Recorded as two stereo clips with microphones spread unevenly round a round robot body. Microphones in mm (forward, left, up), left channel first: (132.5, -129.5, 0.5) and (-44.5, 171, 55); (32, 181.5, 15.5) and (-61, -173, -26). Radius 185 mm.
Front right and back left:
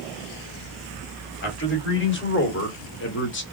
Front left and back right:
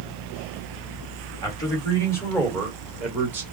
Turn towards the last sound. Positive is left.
turn(degrees=-30)